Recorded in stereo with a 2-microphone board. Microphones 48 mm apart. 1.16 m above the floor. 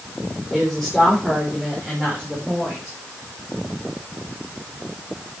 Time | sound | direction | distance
0.5 | a woman speaking | centre (ahead or behind) | 4 m